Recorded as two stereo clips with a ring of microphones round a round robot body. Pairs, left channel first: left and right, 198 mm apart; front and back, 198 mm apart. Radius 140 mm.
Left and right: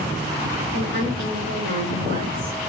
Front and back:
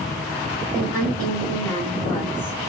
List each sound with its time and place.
0.7 s a woman speaking: 85° right, 4 m